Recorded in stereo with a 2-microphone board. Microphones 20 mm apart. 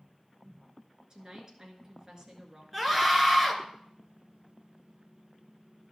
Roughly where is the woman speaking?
Right.